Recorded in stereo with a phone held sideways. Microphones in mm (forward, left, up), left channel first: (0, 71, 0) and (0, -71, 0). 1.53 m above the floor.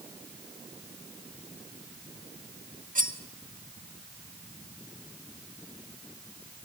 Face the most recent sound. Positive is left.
turn(degrees=-70)  # may be behind; listen again after turning